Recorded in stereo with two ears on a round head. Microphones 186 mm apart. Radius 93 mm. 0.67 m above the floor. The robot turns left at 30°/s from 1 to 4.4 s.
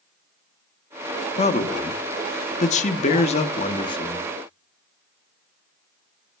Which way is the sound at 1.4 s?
120° left.